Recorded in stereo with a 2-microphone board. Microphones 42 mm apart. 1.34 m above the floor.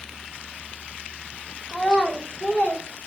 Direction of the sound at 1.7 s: 5° left (ahead or behind).